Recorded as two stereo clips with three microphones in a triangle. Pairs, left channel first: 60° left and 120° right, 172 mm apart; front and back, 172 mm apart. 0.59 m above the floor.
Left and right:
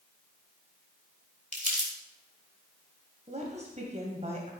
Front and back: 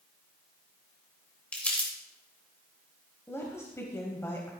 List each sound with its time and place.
1.5 s crumpling: 80° right, 3 m
3.3 s a woman speaking: 75° right, 2.5 m